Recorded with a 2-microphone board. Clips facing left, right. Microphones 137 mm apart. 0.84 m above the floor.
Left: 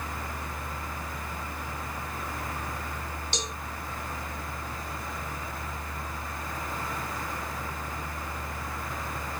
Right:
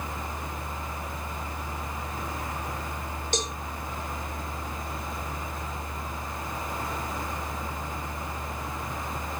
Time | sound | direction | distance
3.3 | a cowbell | 45° right (ahead or behind) | 0.5 m